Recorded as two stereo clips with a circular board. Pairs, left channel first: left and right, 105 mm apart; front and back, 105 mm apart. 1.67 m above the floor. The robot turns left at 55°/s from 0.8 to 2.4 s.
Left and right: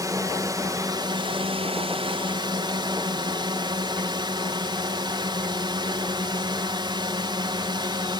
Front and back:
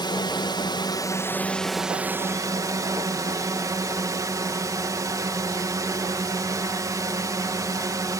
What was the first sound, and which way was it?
A drone, 40° right.